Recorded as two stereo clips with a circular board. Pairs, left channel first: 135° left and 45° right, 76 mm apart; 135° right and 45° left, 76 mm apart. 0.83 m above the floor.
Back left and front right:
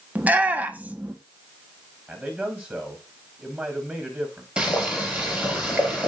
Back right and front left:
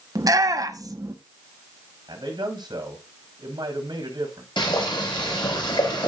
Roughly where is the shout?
Ahead.